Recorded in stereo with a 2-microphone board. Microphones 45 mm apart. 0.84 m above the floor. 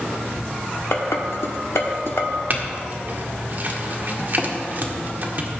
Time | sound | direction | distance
0.9 | dishes clattering | 80° left | 1.2 m
2.5 | a clink | 40° right (ahead or behind) | 1.4 m